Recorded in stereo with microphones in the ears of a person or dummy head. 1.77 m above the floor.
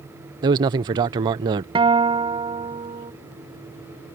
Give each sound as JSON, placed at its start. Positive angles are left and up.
{"t": 0.4, "sound": "a man speaking", "side_deg": -20}
{"t": 1.8, "sound": "a guitar", "side_deg": -20}